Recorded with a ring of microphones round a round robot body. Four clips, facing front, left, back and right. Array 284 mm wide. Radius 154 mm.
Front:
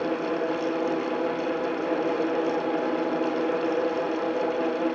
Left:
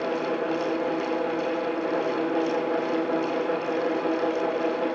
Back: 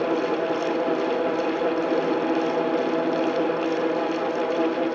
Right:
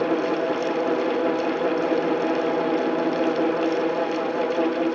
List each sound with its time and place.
Only background noise.